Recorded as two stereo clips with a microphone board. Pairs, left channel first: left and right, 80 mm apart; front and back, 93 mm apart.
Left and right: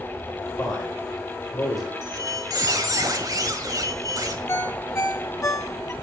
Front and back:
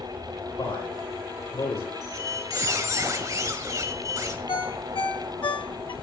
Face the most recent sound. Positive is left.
turn(degrees=30)